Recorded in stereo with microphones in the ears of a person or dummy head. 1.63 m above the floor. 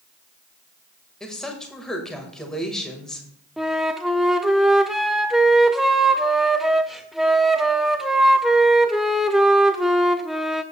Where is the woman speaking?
5° left (ahead or behind), 1.6 m.